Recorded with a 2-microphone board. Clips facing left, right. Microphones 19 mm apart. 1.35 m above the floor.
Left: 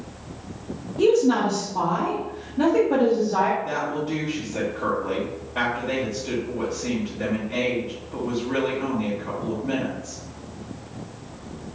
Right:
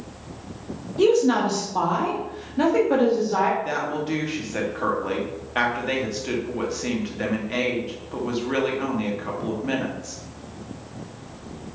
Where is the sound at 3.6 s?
75° right (ahead or behind), 0.9 m.